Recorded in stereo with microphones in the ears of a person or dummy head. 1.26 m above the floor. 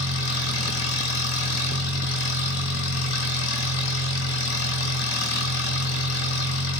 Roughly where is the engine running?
Left.